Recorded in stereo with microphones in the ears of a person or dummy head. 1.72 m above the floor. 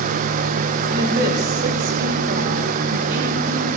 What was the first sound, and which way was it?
A woman speaking, 65° right (ahead or behind).